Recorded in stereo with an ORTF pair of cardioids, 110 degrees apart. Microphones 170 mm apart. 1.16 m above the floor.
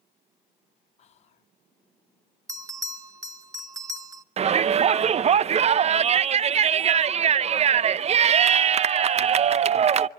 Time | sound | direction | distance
1.0 | whispering | 40° left | 0.5 m
2.5 | a bell | 20° right | 1.6 m
4.4 | a shout | 40° right | 0.7 m